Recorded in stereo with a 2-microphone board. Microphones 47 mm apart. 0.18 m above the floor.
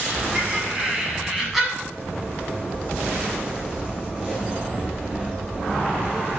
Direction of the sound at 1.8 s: 25° right (ahead or behind).